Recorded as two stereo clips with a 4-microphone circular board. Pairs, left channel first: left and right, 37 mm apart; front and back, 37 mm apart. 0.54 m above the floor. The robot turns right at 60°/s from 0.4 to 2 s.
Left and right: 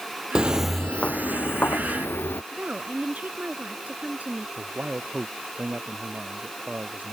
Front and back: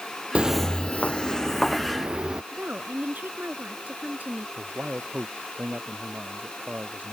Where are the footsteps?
145° right; by 2.4 s 110° left.